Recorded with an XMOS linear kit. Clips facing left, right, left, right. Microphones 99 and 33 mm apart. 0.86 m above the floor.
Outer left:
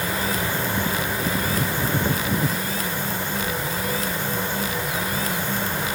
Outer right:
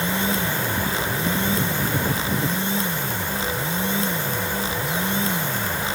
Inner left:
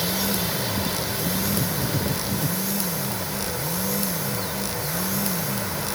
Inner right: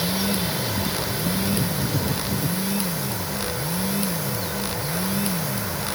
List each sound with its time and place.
Only background noise.